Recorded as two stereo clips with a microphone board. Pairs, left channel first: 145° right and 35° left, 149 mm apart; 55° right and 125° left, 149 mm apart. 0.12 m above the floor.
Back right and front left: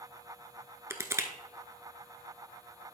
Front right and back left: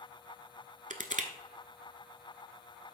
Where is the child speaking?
I don't hear a child speaking.